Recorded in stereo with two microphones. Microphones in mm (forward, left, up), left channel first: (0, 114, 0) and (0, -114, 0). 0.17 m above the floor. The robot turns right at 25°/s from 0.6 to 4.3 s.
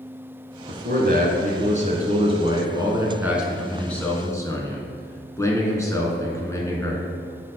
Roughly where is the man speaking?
Right.